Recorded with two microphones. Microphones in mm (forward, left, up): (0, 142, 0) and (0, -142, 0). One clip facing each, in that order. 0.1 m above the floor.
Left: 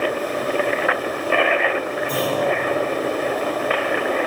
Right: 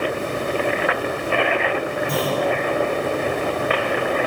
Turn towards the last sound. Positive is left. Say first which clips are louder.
# left 1 dB
turn(degrees=-75)  # may be behind; listen again after turning